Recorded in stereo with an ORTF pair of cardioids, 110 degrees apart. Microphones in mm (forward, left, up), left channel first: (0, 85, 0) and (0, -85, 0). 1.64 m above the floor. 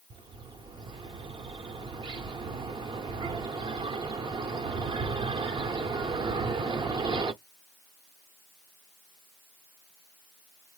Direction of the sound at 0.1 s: 25° right.